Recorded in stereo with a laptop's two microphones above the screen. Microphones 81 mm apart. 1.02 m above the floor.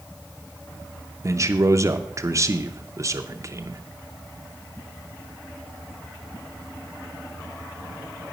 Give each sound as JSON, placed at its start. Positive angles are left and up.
{"t": 1.2, "sound": "a man speaking", "side_deg": -40, "distance_m": 0.6}